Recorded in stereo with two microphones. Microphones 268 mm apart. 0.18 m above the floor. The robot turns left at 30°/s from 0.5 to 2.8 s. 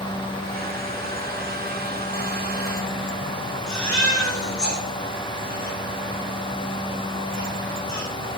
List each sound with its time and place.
3.7 s a baby crying: 85° left, 6 m